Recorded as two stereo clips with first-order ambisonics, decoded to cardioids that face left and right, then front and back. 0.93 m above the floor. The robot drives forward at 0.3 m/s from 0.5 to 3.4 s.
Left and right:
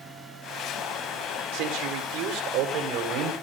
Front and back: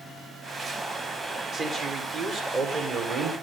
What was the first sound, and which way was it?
A man speaking, 115° right.